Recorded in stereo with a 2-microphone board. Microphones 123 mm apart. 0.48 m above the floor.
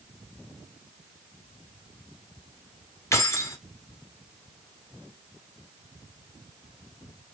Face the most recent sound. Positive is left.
turn(degrees=25)  # may be behind; listen again after turning